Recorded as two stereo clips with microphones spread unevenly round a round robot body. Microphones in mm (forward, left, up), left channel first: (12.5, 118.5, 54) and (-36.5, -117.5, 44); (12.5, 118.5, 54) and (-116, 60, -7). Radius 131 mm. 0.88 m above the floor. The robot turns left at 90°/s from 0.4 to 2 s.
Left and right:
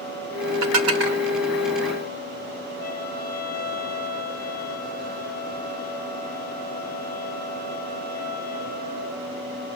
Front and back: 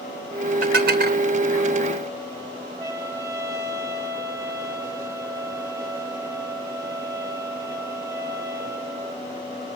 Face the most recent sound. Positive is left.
turn(degrees=135)